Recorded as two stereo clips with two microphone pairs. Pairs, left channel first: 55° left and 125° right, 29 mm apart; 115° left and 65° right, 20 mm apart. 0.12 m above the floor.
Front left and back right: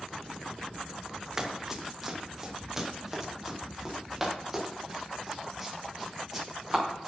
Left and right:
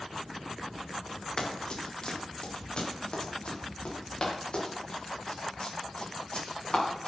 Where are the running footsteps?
160° left, 2.5 m; by 7.1 s 150° left, 7 m.